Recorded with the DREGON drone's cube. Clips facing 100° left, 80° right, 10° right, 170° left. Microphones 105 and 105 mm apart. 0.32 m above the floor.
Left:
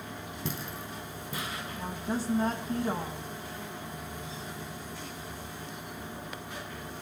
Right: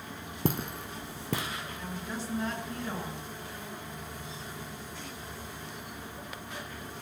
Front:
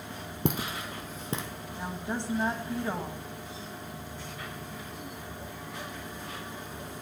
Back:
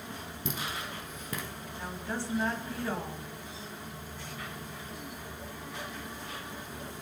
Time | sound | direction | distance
0.5 | footsteps | 40° right | 0.9 m
1.8 | a woman speaking | 55° left | 2 m